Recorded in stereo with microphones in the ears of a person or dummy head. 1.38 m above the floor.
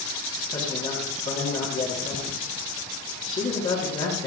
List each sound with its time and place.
0.5 s a man speaking: 35° left (ahead or behind), 3 m